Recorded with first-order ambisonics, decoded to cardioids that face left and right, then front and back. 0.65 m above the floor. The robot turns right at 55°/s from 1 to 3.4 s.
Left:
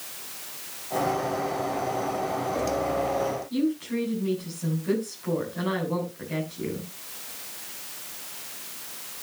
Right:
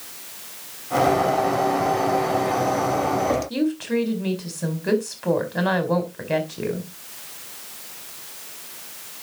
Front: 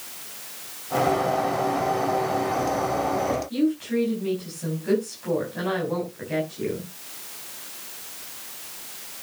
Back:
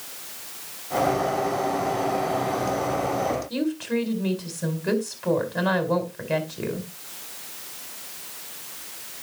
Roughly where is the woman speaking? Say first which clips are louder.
Right 4 dB, front 2 dB; behind right.